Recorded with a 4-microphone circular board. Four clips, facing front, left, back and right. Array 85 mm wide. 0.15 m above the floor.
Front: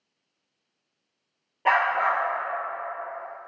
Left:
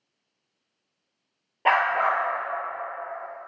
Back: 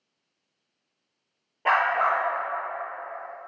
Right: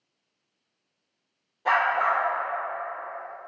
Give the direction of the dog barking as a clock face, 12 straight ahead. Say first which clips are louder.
Left 1 dB, even; 9 o'clock.